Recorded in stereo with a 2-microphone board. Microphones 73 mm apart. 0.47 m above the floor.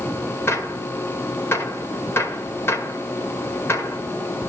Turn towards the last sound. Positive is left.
turn(degrees=35)  # may be behind; listen again after turning